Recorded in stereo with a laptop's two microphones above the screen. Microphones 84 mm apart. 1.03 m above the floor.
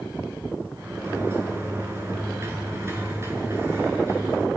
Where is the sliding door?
30° right (ahead or behind), 6.5 m.